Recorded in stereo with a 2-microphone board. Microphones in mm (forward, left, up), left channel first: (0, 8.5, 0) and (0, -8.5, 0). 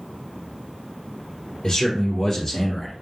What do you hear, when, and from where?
1.6 s a man speaking: 30° left (ahead or behind), 3 m; by 2.9 s 10° left (ahead or behind), 3 m